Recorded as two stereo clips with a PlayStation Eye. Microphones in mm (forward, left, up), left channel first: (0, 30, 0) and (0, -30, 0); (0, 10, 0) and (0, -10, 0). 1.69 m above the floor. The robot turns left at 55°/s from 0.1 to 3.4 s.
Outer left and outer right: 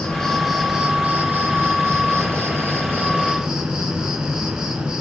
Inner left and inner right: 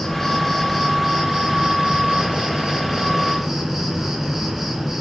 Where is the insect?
20° left, 2.5 m; by 5.0 s 160° right, 2.5 m.